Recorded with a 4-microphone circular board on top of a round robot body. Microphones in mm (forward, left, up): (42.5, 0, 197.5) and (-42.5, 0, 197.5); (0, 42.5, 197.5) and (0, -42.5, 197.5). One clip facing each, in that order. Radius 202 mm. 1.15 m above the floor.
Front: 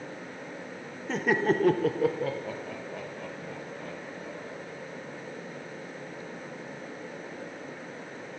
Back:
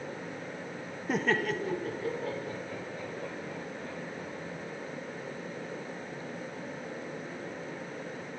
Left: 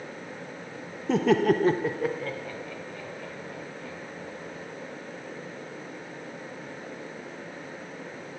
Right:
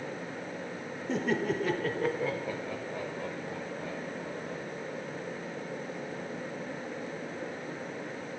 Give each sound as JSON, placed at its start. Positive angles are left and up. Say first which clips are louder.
{"t": 1.1, "sound": "laughter", "louder": "front 4 dB, left 8 dB", "azimuth_deg": 100, "distance_m": 0.8}